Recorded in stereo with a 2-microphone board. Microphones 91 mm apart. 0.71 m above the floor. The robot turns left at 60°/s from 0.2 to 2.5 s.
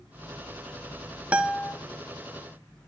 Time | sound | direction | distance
1.3 | a guitar | 15° right (ahead or behind) | 1.0 m